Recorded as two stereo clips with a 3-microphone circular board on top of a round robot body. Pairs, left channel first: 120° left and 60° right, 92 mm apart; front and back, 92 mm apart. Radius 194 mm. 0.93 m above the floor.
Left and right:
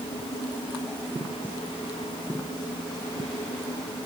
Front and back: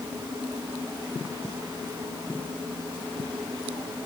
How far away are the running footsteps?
I don't hear running footsteps.